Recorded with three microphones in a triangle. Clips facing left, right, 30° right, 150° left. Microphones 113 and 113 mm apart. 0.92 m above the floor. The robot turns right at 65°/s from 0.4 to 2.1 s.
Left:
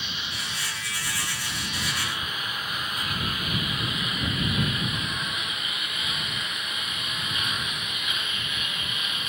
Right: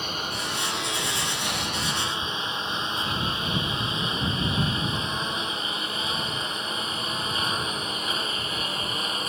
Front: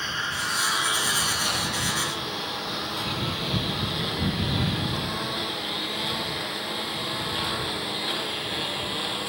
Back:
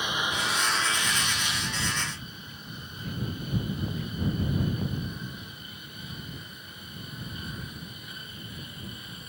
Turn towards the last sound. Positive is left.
turn(degrees=-35)